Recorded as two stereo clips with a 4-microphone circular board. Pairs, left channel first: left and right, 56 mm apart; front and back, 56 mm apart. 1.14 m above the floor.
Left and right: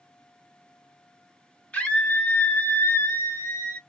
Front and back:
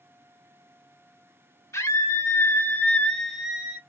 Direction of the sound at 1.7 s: 25° left.